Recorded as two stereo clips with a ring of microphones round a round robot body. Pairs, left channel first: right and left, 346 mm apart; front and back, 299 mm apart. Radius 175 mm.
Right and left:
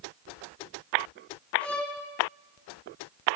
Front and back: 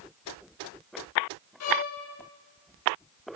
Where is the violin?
5° right, 0.7 m.